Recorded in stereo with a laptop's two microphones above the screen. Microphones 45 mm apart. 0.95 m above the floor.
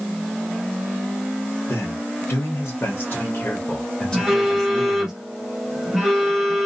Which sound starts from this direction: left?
A man speaking, at 1.7 s.